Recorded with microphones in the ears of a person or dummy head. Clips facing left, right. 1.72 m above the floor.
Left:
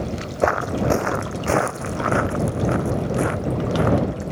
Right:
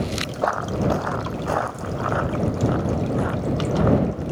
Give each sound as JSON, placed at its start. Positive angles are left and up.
{"t": 0.4, "sound": "footsteps", "side_deg": 35}